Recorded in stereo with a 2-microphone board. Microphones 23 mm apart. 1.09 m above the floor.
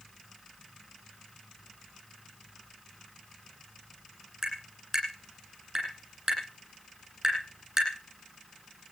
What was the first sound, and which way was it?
Tapping, 20° right (ahead or behind).